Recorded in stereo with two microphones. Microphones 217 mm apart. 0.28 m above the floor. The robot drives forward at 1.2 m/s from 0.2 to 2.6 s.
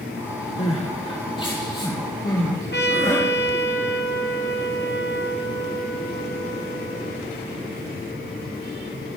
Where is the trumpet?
55° left (ahead or behind), 1.4 m.